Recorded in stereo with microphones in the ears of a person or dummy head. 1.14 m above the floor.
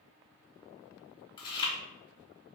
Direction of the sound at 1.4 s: 25° left (ahead or behind).